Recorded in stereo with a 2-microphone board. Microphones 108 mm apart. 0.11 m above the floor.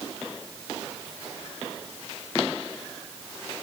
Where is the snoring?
No snoring in this recording.